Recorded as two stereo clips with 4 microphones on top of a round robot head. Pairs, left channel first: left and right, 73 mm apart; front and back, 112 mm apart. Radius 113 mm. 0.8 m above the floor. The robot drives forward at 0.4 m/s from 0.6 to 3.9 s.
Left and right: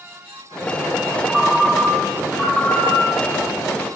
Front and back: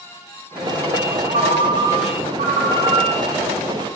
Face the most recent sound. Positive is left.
turn(degrees=180)